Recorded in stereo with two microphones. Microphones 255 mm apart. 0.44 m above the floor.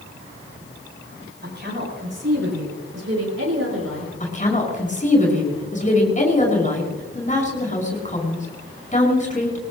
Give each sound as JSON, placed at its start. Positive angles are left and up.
{"t": 1.4, "sound": "a woman speaking", "side_deg": -45, "distance_m": 7.0}
{"t": 4.2, "sound": "a woman speaking", "side_deg": 30, "distance_m": 5.5}